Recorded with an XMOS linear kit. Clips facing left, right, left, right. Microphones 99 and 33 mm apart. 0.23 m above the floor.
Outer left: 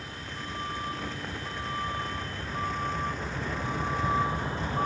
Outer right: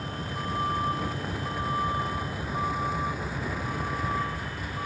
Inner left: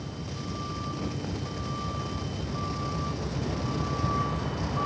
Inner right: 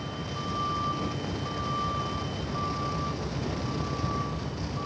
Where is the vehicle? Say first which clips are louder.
Outer right 6 dB, inner right 3 dB; 40° right (ahead or behind); by 4.9 s 35° left (ahead or behind).